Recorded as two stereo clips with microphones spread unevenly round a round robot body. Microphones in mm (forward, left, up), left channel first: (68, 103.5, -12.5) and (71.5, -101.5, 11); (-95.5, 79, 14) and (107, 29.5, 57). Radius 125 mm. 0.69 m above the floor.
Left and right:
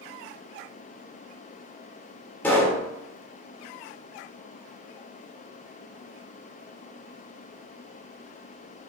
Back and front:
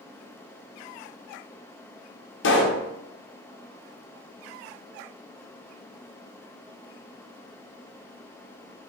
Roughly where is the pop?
Behind.